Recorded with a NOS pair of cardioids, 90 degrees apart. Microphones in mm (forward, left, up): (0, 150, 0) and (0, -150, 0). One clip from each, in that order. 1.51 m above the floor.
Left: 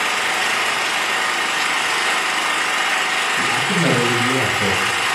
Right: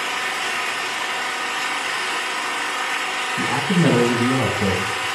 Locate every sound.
0.0 s an engine running: 50° left, 0.8 m
3.4 s a man speaking: 15° right, 2 m